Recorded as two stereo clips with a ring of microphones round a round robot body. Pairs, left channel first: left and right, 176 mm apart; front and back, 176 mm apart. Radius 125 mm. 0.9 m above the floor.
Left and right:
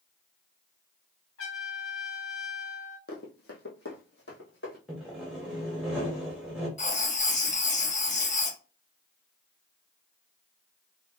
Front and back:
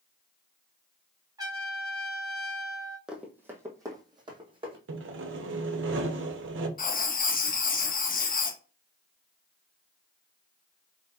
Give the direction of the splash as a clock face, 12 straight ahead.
I don't hear a splash.